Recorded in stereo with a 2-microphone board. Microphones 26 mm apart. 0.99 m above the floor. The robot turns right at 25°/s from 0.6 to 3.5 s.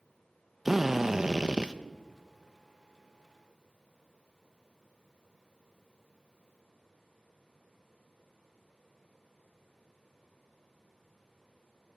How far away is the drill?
About 0.8 m.